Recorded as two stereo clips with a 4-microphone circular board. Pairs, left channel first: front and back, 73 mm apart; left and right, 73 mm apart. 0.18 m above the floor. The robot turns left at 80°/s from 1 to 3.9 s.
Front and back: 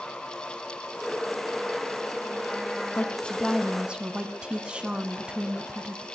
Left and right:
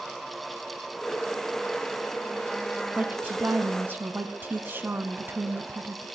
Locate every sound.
3.0 s a woman speaking: 40° right, 1.2 m; by 6.1 s 115° right, 1.2 m